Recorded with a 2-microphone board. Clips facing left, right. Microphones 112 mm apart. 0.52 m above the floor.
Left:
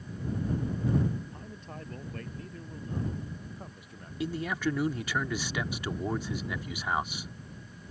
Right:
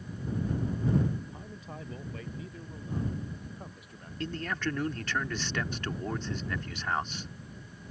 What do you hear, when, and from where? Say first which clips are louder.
1.3 s a man speaking: even; 5° right (ahead or behind); by 4.1 s centre (ahead or behind)
4.2 s a man speaking: left 3 dB; 10° left (ahead or behind)